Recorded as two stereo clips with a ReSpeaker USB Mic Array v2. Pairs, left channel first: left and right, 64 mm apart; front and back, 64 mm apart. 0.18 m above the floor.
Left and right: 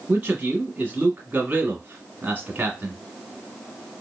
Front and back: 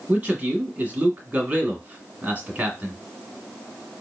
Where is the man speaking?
130° right, 1.2 m.